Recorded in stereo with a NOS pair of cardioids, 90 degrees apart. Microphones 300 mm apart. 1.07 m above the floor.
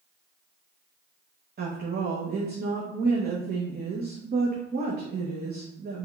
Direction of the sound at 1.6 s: 35° right.